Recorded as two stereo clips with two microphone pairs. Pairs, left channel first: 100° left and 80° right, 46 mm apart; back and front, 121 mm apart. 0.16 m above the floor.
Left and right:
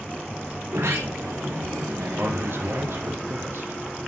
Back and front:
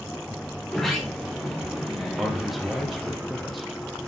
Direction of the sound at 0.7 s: 90° right.